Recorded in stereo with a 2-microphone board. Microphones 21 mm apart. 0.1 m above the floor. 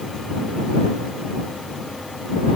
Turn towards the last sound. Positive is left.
No sound to turn to.